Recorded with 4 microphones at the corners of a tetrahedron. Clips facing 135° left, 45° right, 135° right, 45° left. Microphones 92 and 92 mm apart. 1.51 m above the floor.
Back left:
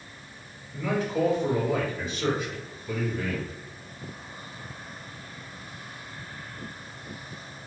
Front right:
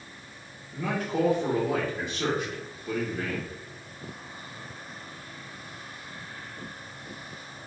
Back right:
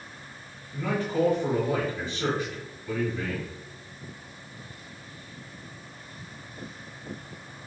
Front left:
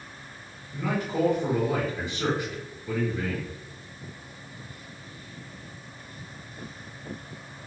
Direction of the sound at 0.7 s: 30° right.